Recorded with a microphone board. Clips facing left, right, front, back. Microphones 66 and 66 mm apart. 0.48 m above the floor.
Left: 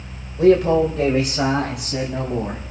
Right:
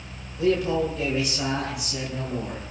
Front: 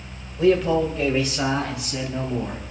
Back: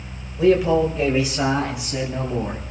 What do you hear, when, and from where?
0.4 s a man speaking: 100° left, 2.0 m; by 2.6 s 110° left, 3.5 m